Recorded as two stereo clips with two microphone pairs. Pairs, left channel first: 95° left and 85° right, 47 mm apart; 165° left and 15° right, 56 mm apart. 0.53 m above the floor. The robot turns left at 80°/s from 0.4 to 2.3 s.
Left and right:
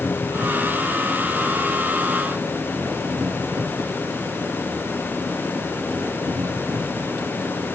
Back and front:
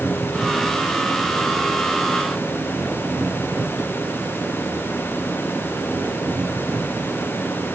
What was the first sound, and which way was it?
An engine running, 80° left.